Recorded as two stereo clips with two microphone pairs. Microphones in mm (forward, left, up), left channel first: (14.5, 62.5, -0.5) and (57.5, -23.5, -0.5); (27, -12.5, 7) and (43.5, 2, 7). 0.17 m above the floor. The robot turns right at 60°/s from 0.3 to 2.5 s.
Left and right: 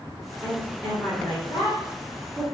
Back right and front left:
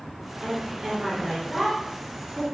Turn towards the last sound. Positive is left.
turn(degrees=165)